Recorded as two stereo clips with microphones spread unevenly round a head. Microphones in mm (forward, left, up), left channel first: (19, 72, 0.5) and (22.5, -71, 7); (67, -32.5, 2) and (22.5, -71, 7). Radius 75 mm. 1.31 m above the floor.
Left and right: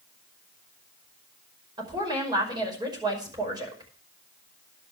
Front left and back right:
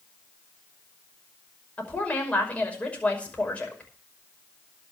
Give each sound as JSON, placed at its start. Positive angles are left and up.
{"t": 1.8, "sound": "a woman speaking", "azimuth_deg": -25, "distance_m": 5.5}